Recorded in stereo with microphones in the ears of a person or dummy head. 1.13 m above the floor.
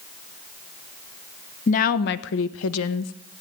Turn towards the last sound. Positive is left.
turn(degrees=75)  # may be behind; listen again after turning